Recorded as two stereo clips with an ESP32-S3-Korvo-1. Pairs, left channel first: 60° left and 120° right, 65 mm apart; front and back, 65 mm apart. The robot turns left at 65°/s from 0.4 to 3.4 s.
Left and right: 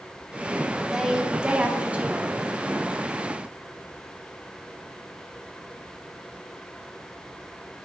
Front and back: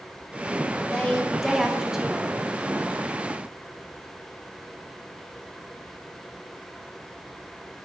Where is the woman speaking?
50° right, 1.0 m; by 2.4 s 145° right, 1.0 m.